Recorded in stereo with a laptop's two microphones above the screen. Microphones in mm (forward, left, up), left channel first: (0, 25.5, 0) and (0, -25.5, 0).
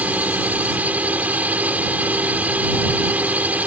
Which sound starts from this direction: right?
A drone, at 0.0 s.